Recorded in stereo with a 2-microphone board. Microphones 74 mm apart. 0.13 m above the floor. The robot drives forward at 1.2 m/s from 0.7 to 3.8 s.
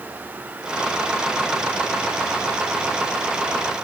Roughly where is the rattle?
I don't hear a rattle.